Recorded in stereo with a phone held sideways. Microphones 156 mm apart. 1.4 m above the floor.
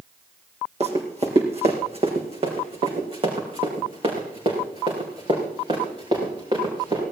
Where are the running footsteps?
45° right (ahead or behind), 3 m; by 7.0 s 30° right (ahead or behind), 7.5 m.